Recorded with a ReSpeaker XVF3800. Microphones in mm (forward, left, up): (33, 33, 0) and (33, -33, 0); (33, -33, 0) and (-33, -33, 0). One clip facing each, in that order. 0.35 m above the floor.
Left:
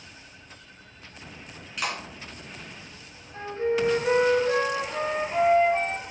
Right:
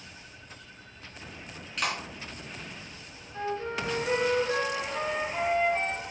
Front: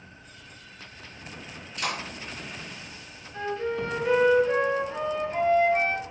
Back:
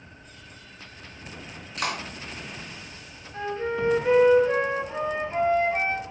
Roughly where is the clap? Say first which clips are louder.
Even, back 2 dB; behind.